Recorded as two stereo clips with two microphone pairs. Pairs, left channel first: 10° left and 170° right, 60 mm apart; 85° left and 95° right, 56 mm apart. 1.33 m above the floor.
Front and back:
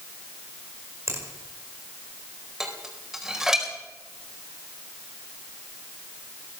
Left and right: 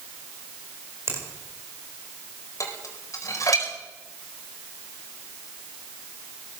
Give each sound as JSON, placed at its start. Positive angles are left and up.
{"t": 1.1, "sound": "a finger snap", "azimuth_deg": -130, "distance_m": 5.0}
{"t": 2.6, "sound": "dishes clattering", "azimuth_deg": 105, "distance_m": 4.5}